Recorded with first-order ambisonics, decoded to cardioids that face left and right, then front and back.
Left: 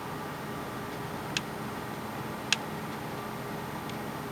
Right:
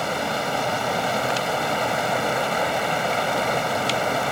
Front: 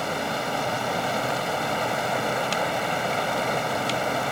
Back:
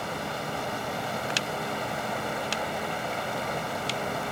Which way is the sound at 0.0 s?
70° right.